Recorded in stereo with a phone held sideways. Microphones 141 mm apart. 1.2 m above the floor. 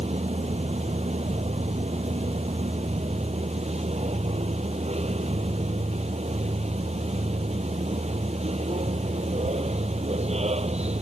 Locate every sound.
0.0 s a machine running: 50° right (ahead or behind)